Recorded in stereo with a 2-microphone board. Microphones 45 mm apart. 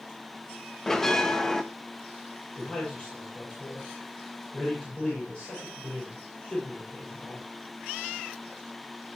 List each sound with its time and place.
0.9 s a bell: 10° left (ahead or behind), 1.0 m
2.6 s a man speaking: 20° left (ahead or behind), 7.5 m